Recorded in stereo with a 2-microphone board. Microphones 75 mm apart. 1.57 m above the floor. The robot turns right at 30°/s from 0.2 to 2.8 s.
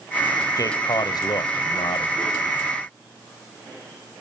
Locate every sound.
0.6 s a man speaking: 50° left, 1.0 m; by 2.2 s 100° left, 1.0 m